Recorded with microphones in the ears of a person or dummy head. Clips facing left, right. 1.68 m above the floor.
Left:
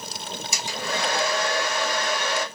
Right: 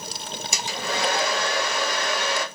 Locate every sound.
0.5 s a hair dryer: 65° right (ahead or behind), 0.9 m